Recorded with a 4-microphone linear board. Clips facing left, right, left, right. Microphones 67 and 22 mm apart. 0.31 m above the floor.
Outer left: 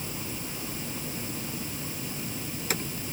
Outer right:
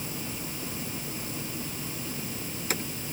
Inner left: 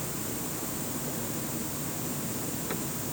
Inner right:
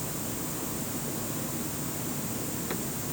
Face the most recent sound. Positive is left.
No sound to turn to.